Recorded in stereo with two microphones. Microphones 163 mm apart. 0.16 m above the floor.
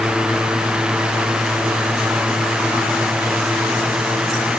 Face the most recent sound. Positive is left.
No sound to turn to.